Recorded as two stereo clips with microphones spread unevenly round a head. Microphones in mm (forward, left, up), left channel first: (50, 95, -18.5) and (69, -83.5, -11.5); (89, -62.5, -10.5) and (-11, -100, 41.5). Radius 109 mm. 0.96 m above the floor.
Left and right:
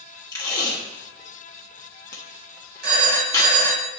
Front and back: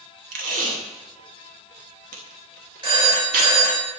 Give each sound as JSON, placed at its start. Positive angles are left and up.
{"t": 0.3, "sound": "tape being pulled", "azimuth_deg": 170, "distance_m": 1.0}
{"t": 2.8, "sound": "a phone ringing", "azimuth_deg": -120, "distance_m": 4.0}